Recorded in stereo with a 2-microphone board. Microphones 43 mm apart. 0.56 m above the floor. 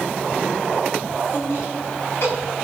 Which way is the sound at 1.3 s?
80° left.